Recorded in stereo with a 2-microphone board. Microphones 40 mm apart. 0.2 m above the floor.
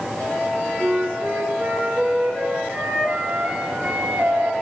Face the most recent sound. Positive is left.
turn(degrees=-40)  # may be behind; listen again after turning